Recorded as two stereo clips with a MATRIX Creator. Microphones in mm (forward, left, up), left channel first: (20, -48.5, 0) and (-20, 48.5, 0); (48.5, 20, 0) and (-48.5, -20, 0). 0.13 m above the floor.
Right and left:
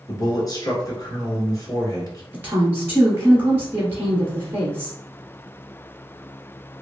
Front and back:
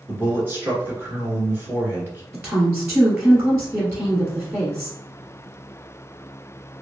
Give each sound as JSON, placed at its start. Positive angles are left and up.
{"t": 0.1, "sound": "a man speaking", "azimuth_deg": -100, "distance_m": 1.4}
{"t": 2.3, "sound": "a woman speaking", "azimuth_deg": 160, "distance_m": 1.3}